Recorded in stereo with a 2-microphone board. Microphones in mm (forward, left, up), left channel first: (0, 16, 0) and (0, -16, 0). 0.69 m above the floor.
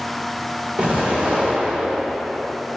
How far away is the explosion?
About 2 m.